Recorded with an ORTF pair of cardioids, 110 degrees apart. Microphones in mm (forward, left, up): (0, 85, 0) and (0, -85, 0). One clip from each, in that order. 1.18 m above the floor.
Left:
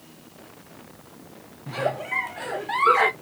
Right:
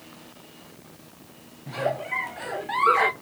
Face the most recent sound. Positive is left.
turn(degrees=10)